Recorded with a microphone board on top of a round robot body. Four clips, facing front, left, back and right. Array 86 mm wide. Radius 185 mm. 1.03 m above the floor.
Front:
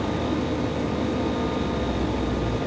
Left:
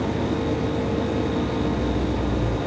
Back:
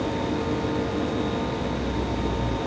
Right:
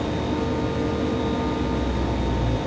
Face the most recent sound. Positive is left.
No sound to turn to.